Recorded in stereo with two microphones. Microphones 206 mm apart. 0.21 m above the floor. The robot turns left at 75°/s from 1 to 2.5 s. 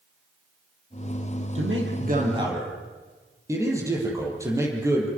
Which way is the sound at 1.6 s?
95° right.